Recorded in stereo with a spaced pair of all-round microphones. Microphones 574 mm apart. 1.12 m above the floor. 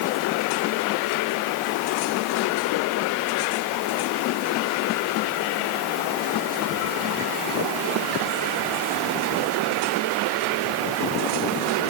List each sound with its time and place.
Only background noise.